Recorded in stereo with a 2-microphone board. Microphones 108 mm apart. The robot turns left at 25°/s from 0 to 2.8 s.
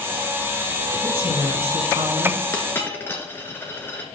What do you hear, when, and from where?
1.0 s a woman speaking: 80° right, 4.5 m; by 2.4 s 115° right, 4.5 m
2.5 s a dropped coin: 25° left (ahead or behind), 2 m; by 4.0 s 20° left (ahead or behind), 2 m